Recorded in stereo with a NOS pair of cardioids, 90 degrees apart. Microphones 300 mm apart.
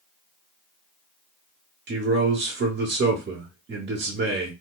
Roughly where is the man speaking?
Ahead right.